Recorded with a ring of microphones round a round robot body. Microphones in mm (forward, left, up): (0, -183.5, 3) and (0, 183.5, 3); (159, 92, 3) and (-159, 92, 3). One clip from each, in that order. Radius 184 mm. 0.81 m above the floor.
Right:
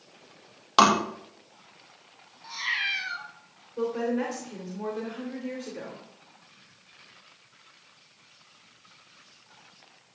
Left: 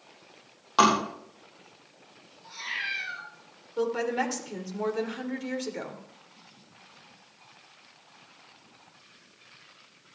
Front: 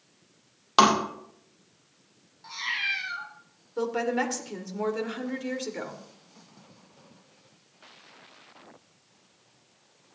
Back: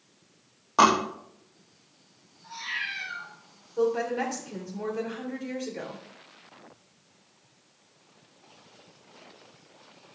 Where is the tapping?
30° right, 4 m.